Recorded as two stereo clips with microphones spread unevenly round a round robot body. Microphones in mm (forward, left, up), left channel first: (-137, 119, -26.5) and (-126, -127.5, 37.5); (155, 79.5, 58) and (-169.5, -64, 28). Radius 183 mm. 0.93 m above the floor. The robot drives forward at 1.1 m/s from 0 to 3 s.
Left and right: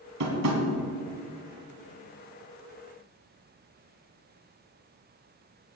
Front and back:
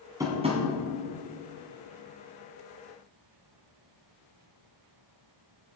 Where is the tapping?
75° right, 2.5 m; by 0.6 s 85° right, 2.5 m.